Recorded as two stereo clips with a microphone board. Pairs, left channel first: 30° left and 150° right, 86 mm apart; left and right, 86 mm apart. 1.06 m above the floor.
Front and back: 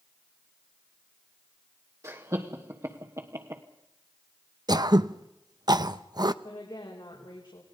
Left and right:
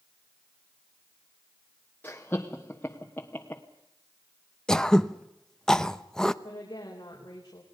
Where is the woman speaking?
50° left, 4.5 m.